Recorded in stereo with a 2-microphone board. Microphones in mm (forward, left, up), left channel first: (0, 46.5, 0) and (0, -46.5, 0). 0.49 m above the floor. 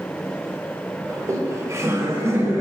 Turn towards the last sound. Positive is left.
turn(degrees=-30)  # may be behind; listen again after turning